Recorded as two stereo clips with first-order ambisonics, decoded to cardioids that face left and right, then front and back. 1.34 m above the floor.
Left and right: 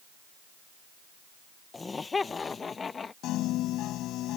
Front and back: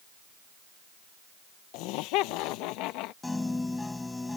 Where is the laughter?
15° left; by 3.1 s 20° left.